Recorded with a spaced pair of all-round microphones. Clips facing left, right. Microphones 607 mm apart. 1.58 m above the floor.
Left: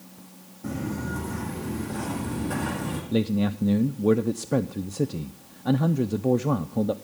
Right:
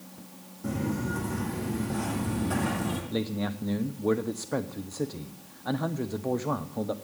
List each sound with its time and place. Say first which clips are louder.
0.6 s footsteps: even; centre (ahead or behind), 4 m; by 3.0 s 5° right (ahead or behind), 3 m
3.1 s a man speaking: left 11 dB; 55° left (ahead or behind), 0.6 m